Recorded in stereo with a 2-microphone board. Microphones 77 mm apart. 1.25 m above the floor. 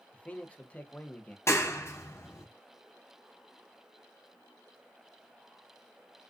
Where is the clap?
35° left (ahead or behind), 0.7 m.